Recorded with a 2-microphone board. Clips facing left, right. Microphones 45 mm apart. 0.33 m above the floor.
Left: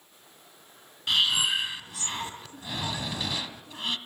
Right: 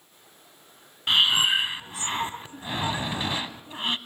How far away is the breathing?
About 1.0 m.